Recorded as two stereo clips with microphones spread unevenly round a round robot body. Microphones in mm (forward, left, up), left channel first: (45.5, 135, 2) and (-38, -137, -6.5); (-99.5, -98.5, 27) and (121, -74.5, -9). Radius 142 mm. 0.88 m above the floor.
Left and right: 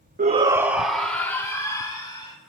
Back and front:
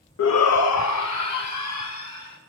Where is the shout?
165° right, 0.8 m; by 2.4 s 145° left, 3 m.